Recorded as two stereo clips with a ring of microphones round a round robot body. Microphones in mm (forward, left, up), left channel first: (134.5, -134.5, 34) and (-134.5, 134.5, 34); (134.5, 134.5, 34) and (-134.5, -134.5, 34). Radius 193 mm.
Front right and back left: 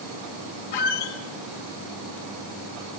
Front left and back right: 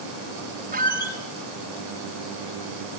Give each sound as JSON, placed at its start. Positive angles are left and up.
{"t": 0.7, "sound": "a squeak", "azimuth_deg": -65, "distance_m": 1.6}